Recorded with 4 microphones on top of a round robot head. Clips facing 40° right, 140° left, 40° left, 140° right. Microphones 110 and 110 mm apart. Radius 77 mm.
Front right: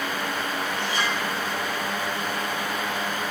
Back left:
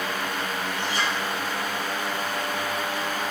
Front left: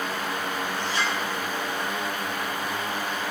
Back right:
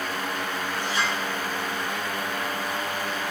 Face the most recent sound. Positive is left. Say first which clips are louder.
# back left 1 dB, back right 2 dB
turn(degrees=-55)